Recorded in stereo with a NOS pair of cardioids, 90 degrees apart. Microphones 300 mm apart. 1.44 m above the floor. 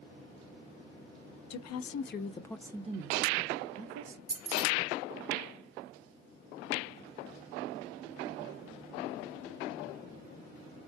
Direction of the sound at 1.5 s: 65° left.